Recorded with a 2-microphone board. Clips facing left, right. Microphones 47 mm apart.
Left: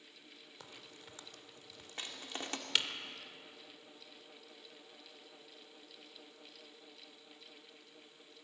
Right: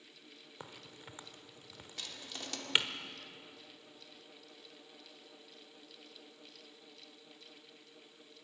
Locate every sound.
0.6 s a crack: 25° right (ahead or behind), 1.2 m
2.0 s crushing: 35° left (ahead or behind), 2 m